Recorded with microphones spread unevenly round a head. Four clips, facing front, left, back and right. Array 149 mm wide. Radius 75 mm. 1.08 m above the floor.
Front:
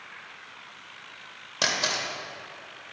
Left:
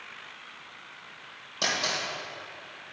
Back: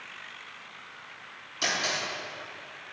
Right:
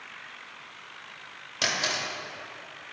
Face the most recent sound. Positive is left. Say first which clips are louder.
# even, front 2 dB
turn(degrees=-10)